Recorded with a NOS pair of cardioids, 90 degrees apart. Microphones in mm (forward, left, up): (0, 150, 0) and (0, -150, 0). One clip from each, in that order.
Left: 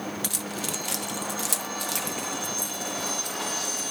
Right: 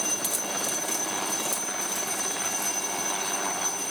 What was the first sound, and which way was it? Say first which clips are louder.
Keys jangling: right 2 dB; 15° left.